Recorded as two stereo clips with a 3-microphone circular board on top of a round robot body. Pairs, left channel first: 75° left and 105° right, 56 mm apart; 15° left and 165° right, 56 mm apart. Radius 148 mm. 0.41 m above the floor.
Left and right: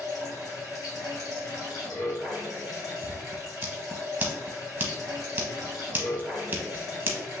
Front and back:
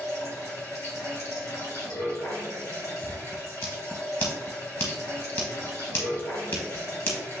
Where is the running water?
55° left, 2 m.